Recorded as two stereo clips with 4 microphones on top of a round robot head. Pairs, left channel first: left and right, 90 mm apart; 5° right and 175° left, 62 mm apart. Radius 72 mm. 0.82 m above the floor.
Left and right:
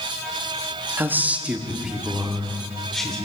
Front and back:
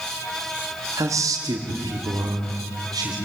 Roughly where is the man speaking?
Behind right.